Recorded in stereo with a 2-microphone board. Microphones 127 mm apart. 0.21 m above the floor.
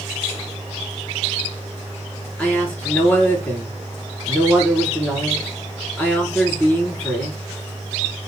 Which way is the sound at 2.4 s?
10° left (ahead or behind).